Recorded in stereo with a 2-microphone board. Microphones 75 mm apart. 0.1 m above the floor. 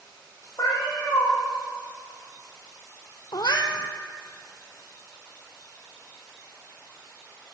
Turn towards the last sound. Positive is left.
turn(degrees=65)  # may be behind; listen again after turning